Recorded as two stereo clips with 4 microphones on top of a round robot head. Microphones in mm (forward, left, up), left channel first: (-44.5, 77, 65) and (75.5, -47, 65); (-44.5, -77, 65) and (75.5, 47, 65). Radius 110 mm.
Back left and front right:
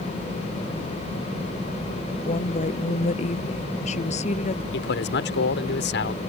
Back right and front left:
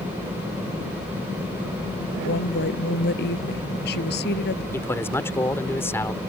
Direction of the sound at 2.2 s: 170° right.